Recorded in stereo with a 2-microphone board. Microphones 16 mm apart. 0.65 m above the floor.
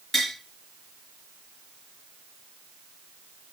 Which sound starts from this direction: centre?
Tapping, at 0.1 s.